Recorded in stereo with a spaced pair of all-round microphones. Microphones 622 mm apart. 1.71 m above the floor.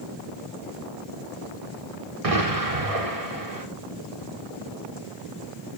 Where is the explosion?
60° right (ahead or behind), 1.4 m.